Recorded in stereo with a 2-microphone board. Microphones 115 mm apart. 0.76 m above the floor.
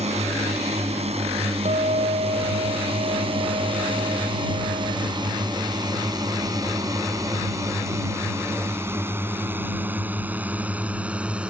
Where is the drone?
70° right (ahead or behind); by 11.5 s 10° right (ahead or behind).